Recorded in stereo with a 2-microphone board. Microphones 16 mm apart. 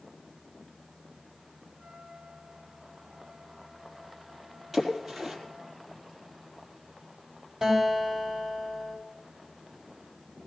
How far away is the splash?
About 4.5 m.